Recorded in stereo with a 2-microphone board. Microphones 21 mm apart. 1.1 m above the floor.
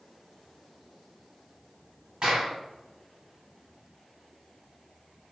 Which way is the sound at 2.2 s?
50° right (ahead or behind).